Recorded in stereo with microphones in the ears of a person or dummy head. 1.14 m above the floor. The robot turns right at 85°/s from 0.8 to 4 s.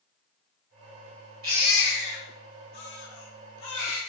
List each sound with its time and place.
1.4 s a baby crying: 25° right (ahead or behind), 3 m; by 4.0 s 15° right (ahead or behind), 3 m